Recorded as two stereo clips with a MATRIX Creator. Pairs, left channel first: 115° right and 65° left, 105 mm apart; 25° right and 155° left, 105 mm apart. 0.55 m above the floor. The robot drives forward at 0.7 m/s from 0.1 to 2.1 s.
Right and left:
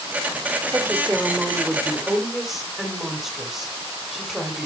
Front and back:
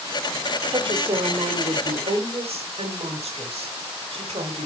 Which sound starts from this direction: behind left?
A woman speaking, at 0.7 s.